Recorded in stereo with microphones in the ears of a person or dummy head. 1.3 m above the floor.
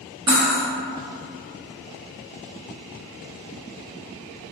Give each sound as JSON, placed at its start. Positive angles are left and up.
{"t": 0.3, "sound": "cutlery clinking", "side_deg": -20, "distance_m": 0.5}